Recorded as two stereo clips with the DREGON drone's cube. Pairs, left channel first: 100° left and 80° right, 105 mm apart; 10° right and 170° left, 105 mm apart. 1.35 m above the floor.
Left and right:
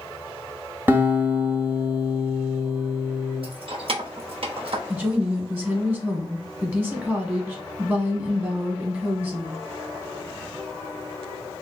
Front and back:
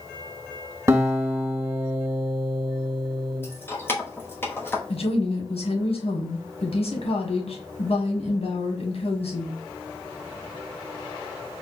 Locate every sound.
0.9 s a guitar: 145° right, 1.5 m
3.4 s keys jangling: 75° right, 1.0 m
4.9 s a woman speaking: 10° right, 1.1 m